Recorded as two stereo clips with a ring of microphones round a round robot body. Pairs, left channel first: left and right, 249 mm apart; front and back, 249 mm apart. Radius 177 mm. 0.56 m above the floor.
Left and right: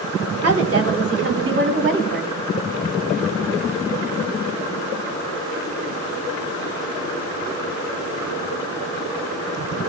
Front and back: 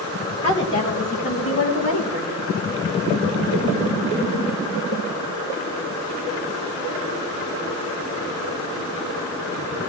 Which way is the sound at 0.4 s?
75° right.